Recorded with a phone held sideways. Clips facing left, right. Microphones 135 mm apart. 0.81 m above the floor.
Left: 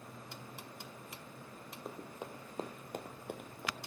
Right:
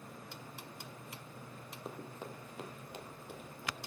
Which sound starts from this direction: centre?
Running footsteps, at 1.9 s.